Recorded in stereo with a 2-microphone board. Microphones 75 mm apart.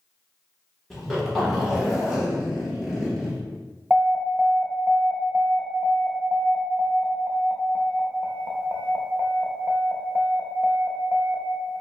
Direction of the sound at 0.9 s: Centre (ahead or behind).